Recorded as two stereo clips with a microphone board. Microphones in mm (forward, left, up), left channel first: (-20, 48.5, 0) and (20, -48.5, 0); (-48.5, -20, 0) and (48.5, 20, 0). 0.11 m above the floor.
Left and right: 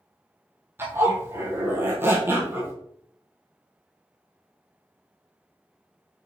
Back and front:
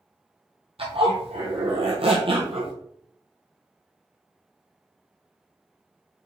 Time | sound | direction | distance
0.8 | a zipper | straight ahead | 1.2 m